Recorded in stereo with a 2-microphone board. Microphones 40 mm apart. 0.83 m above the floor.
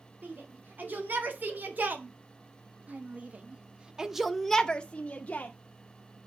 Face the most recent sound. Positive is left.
turn(degrees=45)  # may be behind; listen again after turning